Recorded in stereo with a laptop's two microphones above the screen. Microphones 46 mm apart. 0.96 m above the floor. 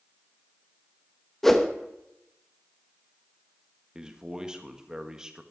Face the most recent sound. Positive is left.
turn(degrees=-15)  # may be behind; listen again after turning